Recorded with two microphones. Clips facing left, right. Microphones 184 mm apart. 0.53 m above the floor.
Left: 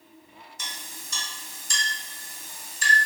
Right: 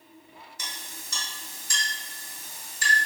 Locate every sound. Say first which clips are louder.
0.6 s a clink: left 1 dB; 65° right (ahead or behind), 1.5 m